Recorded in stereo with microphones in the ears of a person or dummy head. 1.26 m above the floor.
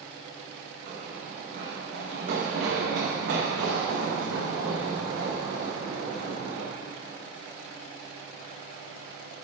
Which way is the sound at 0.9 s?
45° right (ahead or behind).